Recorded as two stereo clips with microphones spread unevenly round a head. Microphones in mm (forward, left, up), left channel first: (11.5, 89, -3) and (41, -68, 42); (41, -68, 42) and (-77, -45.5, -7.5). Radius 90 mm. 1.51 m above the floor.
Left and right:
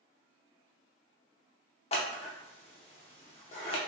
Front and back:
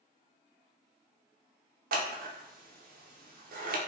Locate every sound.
1.9 s scissors: 165° left, 0.7 m